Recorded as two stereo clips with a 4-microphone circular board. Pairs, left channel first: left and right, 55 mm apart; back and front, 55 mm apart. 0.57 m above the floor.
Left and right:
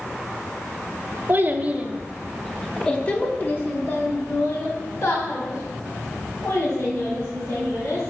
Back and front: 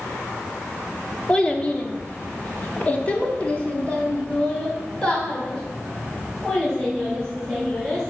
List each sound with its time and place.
1.3 s a child speaking: 115° right, 1.0 m; by 8.1 s 105° left, 3.5 m